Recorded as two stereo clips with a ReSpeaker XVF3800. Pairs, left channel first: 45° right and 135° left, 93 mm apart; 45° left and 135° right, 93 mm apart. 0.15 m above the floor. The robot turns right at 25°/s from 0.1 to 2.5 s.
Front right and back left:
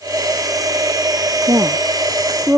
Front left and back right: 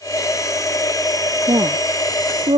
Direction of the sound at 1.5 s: Straight behind.